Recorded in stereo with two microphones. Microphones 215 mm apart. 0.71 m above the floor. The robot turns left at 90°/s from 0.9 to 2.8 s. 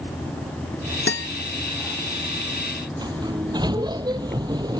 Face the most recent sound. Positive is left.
turn(degrees=-20)  # may be behind; listen again after turning